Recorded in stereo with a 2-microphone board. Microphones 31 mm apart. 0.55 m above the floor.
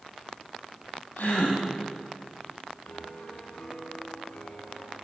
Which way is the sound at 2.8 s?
55° left (ahead or behind).